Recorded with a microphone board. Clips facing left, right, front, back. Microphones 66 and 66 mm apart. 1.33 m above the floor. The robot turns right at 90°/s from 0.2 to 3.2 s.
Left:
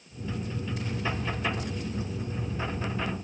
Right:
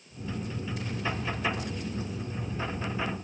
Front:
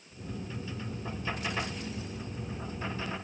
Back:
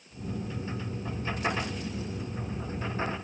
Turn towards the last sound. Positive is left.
No sound to turn to.